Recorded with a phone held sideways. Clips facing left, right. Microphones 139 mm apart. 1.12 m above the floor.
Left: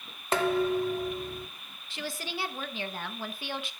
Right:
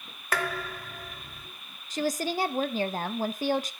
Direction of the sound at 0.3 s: 25° left (ahead or behind).